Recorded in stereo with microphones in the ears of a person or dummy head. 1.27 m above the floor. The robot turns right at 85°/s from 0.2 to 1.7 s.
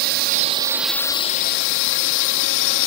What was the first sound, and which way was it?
A drone, 55° right.